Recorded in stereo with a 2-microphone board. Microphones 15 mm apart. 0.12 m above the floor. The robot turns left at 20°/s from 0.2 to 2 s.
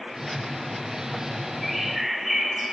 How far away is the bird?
About 4.5 m.